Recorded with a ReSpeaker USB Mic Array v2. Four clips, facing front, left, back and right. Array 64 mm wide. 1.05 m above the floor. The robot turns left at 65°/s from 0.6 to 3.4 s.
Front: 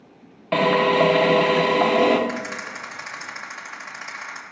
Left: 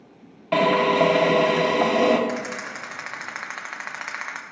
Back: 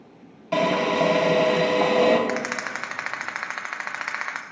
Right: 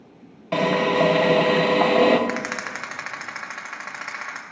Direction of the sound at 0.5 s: 15° left.